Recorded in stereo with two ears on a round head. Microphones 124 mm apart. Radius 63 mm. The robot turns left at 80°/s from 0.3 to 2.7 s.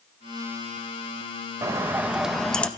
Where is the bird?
20° right (ahead or behind), 0.7 m; by 2.7 s 10° left (ahead or behind), 0.7 m.